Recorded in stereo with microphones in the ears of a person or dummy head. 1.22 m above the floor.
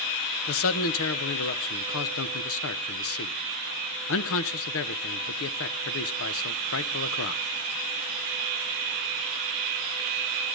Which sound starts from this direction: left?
A man speaking, at 0.5 s.